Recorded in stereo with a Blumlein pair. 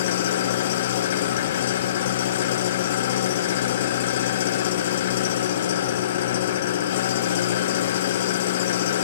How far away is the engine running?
About 0.7 m.